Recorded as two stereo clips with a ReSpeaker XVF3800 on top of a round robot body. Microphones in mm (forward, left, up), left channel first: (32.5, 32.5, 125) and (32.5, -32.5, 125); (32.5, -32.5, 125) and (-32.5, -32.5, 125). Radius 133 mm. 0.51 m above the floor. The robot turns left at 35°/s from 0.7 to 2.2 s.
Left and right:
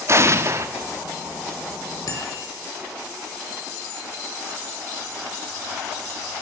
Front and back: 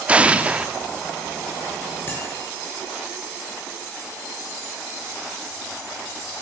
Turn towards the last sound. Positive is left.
turn(degrees=55)